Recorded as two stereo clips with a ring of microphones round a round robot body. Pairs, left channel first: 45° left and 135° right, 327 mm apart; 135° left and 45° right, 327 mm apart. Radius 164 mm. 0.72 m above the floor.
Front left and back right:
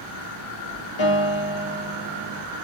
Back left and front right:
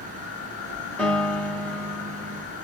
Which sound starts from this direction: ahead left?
A piano, at 1.0 s.